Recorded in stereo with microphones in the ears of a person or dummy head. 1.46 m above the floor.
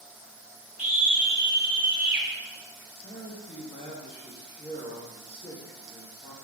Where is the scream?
10° right (ahead or behind), 1.1 m; by 2.3 s 15° right (ahead or behind), 2 m.